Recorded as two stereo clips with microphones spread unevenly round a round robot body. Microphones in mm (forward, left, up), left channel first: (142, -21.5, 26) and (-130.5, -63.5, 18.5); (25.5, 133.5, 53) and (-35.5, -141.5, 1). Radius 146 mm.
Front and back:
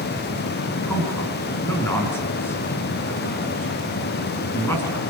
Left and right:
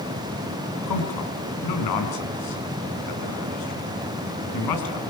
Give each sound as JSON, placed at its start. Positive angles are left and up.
{"t": 0.9, "sound": "a man speaking", "azimuth_deg": 90, "distance_m": 4.5}